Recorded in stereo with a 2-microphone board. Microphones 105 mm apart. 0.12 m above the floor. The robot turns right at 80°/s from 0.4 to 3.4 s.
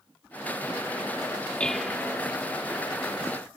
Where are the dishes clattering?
165° left; by 2.2 s 140° right.